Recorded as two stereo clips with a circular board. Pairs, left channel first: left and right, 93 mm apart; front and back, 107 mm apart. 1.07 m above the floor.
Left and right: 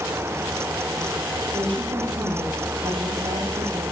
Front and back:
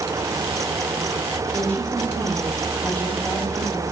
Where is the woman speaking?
75° right, 6.5 m.